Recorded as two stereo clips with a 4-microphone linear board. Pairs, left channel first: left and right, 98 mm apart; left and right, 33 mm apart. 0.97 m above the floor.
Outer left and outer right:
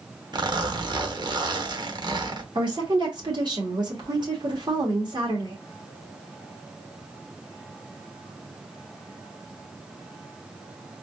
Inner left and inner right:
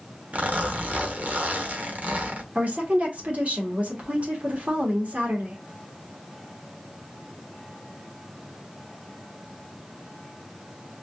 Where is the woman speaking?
50° right (ahead or behind), 1.6 m.